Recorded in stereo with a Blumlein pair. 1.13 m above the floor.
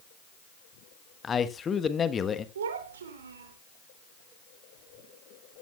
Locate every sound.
1.2 s a man speaking: 20° left, 1.2 m
2.5 s a child speaking: 65° right, 3 m